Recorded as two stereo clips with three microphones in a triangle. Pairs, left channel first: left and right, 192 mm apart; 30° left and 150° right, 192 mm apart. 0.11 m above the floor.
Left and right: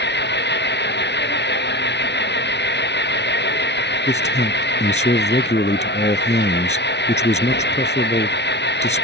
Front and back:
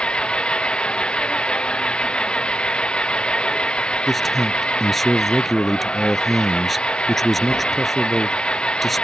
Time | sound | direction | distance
0.0 | an engine running | 115° left | ?
4.1 | a man speaking | 120° left | ?